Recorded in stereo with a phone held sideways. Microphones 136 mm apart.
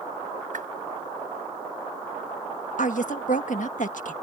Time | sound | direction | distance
0.5 | a whoosh | 80° right | ?
2.8 | a woman speaking | 70° left (ahead or behind) | ?